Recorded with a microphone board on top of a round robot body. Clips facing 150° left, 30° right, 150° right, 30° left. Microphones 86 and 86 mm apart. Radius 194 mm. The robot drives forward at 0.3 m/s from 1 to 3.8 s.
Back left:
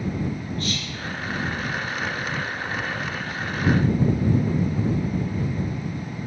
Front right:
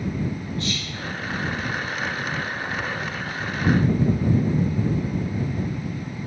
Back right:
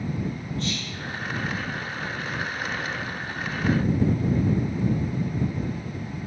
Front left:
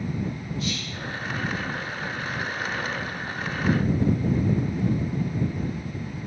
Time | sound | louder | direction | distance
0.6 | whispering | even, even | 115° left | 1.1 m